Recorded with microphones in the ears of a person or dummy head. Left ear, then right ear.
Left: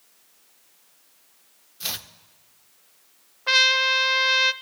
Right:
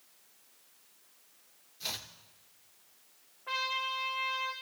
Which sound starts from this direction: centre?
Chopping, at 1.8 s.